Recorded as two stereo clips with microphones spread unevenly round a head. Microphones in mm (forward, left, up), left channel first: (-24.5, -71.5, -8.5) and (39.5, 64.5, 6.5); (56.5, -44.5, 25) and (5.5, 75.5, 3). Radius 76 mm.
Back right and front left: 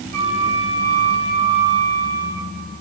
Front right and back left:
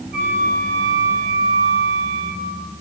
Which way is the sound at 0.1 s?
105° left.